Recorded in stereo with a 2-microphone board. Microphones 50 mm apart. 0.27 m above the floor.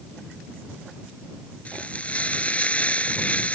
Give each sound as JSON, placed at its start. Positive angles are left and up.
{"t": 1.6, "sound": "frying", "side_deg": 30}